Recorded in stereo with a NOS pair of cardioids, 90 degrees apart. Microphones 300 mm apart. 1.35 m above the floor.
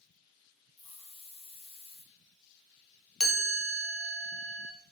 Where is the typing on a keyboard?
No typing on a keyboard in this recording.